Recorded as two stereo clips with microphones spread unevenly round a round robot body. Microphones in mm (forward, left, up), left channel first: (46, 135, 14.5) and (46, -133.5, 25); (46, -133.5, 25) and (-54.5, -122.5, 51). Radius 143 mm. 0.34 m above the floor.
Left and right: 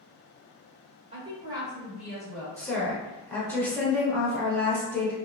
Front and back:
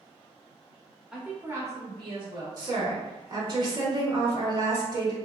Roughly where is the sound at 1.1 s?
Right.